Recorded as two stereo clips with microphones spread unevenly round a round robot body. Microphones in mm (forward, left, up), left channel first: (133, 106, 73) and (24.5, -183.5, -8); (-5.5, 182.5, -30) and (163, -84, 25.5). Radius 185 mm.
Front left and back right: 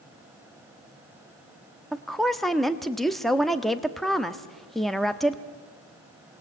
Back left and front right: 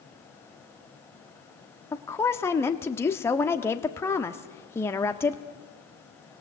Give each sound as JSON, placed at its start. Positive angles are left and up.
{"t": 1.9, "sound": "a woman speaking", "azimuth_deg": 180, "distance_m": 0.9}